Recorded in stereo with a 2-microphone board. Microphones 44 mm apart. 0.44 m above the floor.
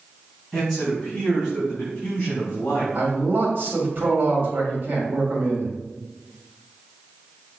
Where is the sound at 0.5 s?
15° left (ahead or behind), 3 m; by 2.9 s 45° left (ahead or behind), 2 m.